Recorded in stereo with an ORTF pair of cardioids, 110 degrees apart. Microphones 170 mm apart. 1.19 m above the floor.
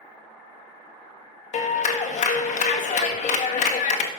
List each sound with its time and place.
1.5 s a clap: 45° left, 1.5 m